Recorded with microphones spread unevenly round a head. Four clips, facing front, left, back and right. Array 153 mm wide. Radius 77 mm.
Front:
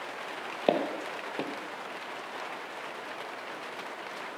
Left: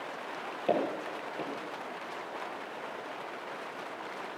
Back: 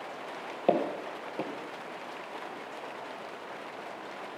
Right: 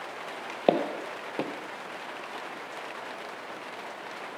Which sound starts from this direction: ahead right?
Footsteps, at 0.7 s.